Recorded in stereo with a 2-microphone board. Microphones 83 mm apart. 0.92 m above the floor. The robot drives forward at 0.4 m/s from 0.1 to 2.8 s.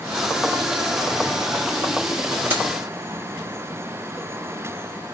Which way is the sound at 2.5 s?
25° right (ahead or behind).